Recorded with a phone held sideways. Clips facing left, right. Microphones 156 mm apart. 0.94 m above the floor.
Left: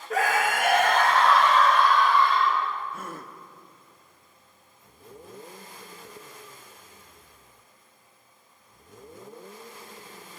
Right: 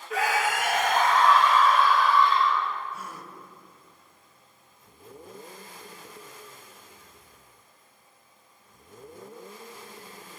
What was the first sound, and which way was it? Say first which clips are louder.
A scream: left 2 dB; 45° left (ahead or behind).